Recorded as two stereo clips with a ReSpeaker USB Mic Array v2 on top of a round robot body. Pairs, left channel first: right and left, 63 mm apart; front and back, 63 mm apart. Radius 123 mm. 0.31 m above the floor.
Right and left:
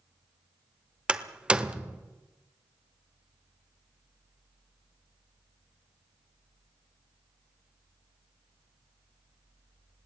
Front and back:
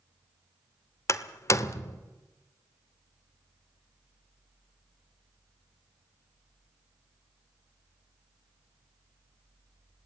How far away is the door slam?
About 1.2 m.